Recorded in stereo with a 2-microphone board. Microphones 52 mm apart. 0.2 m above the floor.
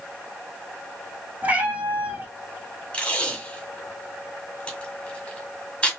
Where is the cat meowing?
30° right (ahead or behind), 2.5 m.